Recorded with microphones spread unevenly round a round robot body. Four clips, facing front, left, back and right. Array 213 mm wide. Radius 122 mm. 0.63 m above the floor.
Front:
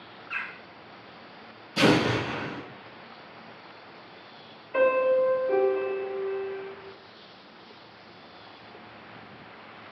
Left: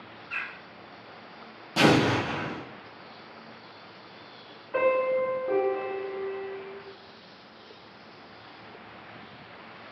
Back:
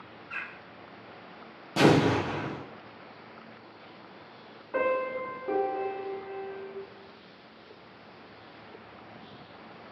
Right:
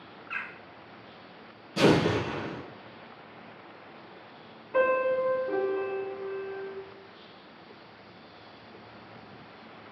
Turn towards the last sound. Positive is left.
turn(degrees=165)